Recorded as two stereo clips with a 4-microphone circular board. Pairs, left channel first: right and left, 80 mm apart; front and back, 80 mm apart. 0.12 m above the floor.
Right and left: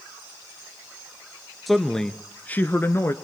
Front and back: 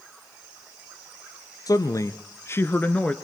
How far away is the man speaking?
About 1.6 m.